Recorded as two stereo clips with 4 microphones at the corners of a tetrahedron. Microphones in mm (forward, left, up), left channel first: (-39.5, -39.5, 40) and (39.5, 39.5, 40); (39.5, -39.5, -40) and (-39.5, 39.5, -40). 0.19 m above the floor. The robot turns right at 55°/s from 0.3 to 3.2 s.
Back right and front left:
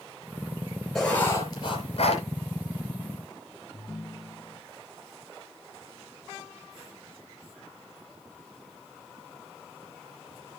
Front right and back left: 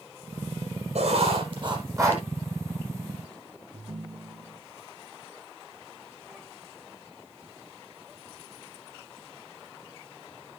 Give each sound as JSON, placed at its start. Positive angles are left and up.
{"t": 0.9, "sound": "writing", "azimuth_deg": 140, "distance_m": 4.5}
{"t": 3.7, "sound": "a ringtone", "azimuth_deg": 155, "distance_m": 1.6}